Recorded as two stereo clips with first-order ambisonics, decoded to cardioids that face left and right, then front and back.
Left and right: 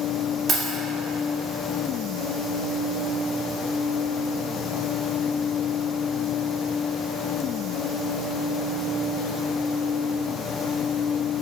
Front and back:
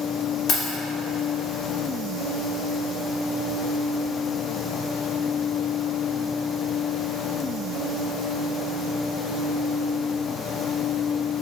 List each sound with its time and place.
0.5 s keys jangling: 35° right, 0.8 m